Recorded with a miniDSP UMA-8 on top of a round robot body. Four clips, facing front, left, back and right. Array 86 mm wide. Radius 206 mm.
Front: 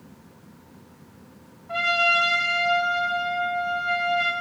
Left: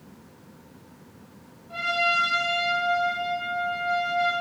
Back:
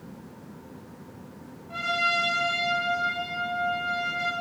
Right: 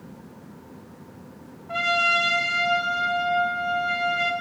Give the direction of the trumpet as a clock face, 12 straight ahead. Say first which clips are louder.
Right 2 dB, front 4 dB; 2 o'clock.